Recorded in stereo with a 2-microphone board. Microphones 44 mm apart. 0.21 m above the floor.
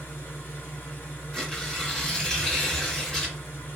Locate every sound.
0.0 s an engine running: 50° left (ahead or behind), 1.9 m
1.3 s tearing paper: 10° left (ahead or behind), 1.5 m